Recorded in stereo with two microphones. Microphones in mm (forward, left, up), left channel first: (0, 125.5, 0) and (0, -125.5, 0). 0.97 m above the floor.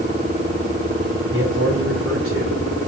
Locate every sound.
1.3 s a man speaking: 50° right (ahead or behind), 4 m; by 2.9 s 70° right (ahead or behind), 2.5 m